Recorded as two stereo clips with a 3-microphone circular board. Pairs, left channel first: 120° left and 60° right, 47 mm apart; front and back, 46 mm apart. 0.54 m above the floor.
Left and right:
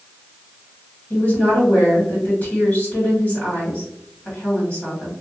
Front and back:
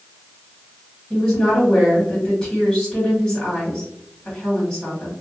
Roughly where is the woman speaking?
Left.